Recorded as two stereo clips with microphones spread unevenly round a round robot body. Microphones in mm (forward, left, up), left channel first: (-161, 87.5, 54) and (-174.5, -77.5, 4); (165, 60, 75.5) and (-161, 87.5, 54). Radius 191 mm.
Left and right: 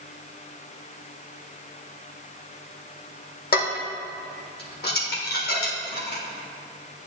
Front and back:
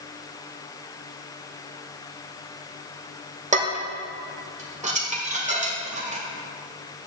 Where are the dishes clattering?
110° left, 1.7 m.